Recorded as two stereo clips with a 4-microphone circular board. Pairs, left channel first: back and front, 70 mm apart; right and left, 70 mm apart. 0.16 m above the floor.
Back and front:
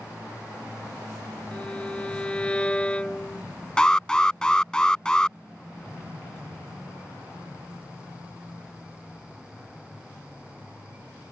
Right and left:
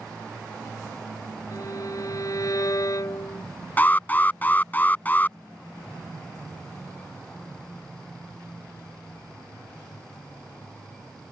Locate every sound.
1.5 s a violin: 110° right
3.8 s an alarm: 115° right